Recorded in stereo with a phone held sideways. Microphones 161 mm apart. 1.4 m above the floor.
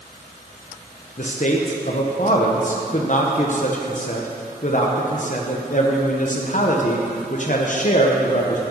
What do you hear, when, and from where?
1.2 s a man speaking: 55° left (ahead or behind), 0.9 m